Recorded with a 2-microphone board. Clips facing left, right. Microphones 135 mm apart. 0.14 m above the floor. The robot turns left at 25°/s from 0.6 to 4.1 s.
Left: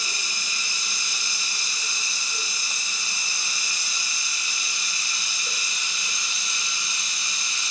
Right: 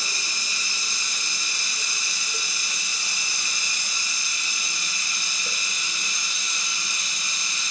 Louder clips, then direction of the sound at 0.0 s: Right 1 dB; 40° right.